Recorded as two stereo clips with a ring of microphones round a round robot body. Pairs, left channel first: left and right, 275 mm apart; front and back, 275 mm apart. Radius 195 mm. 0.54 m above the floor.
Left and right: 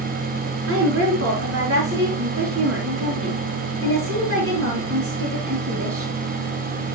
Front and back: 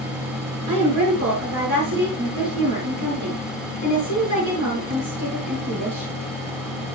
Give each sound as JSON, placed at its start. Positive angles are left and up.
{"t": 0.7, "sound": "a woman speaking", "azimuth_deg": -150, "distance_m": 6.0}